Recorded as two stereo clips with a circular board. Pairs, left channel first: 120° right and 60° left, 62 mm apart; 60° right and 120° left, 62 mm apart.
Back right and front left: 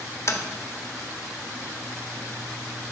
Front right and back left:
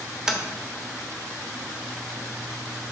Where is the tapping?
155° right, 1.1 m.